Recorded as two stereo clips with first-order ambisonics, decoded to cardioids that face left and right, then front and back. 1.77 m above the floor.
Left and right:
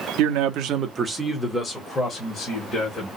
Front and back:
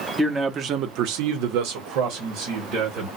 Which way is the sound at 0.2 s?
95° right.